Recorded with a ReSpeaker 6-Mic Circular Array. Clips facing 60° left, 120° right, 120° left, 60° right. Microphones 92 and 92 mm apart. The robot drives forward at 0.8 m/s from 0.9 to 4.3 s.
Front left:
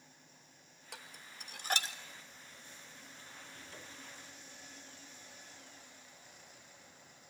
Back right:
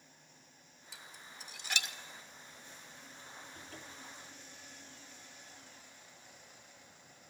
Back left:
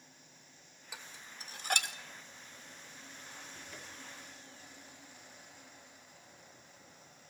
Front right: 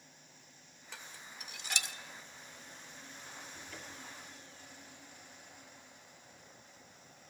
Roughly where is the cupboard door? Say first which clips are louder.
Back right 1 dB, front right 1 dB; behind.